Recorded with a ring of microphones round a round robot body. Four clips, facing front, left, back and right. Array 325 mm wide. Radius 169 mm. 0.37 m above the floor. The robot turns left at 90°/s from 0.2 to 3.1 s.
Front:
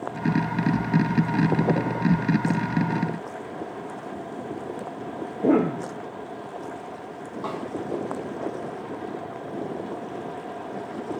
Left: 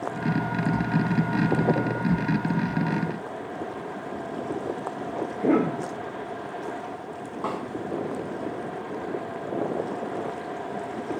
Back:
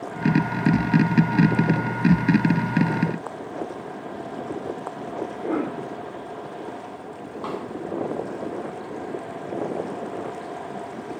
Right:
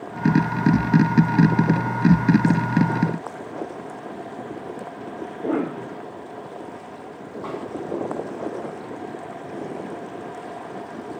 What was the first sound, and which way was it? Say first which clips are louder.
A cough: left 2 dB, front 7 dB; 25° left.